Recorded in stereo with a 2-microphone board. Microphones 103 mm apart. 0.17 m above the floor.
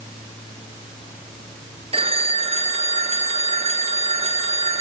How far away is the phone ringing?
About 1.7 m.